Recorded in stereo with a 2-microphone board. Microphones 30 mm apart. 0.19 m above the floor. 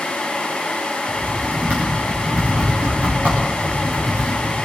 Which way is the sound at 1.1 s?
70° right (ahead or behind).